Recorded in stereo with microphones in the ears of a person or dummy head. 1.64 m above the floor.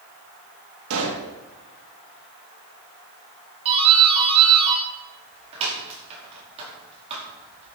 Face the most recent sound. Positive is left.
turn(degrees=-35)  # may be behind; listen again after turning